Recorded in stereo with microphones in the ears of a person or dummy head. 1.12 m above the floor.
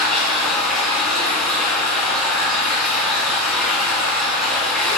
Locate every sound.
0.0 s running water: centre (ahead or behind), 1.8 m